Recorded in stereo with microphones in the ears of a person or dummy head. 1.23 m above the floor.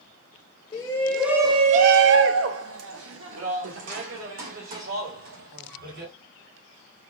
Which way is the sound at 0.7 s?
20° left (ahead or behind).